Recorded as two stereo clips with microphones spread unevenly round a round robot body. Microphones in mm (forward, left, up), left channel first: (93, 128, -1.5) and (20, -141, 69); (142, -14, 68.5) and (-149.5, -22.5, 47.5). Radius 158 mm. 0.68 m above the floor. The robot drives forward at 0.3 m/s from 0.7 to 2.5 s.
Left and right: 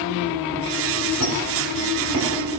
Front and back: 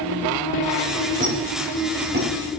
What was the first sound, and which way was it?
A squeak, 120° left.